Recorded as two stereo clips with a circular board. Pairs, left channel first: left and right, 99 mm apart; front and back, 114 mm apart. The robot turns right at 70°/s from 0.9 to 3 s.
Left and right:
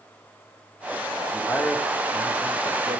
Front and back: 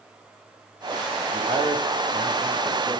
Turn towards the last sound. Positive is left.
turn(degrees=-100)